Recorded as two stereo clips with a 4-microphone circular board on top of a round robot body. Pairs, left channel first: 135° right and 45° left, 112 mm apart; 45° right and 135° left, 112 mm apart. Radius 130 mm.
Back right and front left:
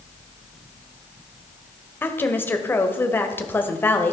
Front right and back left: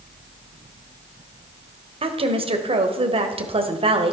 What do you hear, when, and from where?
2.0 s a woman speaking: 155° left, 1.7 m